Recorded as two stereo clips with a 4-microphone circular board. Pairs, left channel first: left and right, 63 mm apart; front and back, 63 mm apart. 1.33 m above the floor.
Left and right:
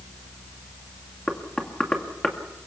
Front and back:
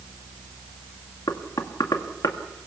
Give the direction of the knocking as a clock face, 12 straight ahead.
12 o'clock.